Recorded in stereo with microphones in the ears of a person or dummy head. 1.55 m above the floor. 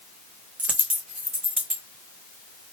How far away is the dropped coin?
About 1.0 m.